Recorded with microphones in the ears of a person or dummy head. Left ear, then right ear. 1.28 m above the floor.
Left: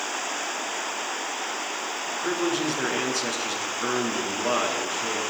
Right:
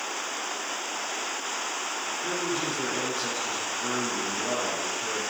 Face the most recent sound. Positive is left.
turn(degrees=80)